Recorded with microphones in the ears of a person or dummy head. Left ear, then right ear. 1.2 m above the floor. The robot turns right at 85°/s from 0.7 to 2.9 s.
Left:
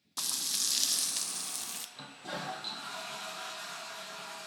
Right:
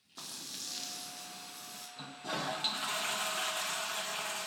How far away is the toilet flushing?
About 1.0 m.